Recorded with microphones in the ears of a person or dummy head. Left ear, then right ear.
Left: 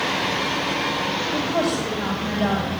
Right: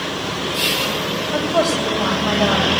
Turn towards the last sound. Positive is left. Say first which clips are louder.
# right 8 dB
turn(degrees=-50)  # may be behind; listen again after turning